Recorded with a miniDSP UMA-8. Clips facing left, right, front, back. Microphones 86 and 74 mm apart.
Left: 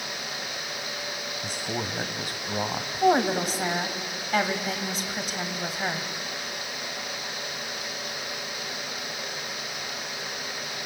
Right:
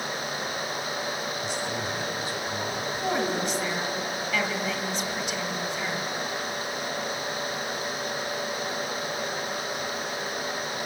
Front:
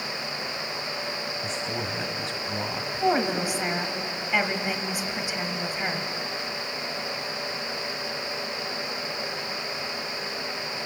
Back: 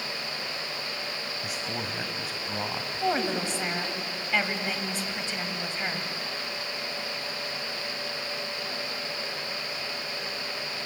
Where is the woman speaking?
75° left, 1.9 m.